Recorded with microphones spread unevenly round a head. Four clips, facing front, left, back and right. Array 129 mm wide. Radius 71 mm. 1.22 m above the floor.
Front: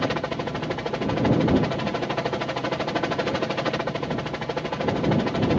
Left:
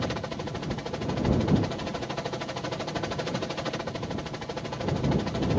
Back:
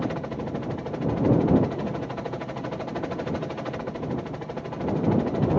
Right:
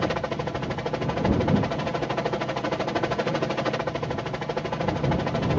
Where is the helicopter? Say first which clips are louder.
Right 6 dB, front 3 dB; 40° right.